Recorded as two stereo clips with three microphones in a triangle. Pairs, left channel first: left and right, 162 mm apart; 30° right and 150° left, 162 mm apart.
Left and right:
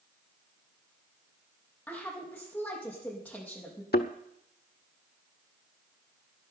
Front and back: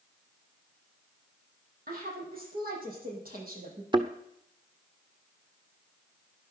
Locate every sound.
1.9 s a woman speaking: 170° left, 6 m
3.9 s a thud: 90° left, 1.1 m